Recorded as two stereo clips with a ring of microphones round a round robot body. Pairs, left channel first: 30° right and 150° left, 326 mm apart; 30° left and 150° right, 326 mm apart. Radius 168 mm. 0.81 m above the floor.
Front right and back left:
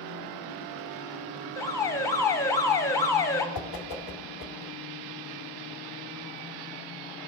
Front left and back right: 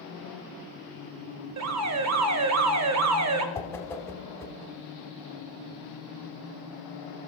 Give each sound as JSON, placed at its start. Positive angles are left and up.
{"t": 1.6, "sound": "an alarm", "azimuth_deg": -110, "distance_m": 0.8}
{"t": 3.5, "sound": "a whoosh", "azimuth_deg": -50, "distance_m": 0.7}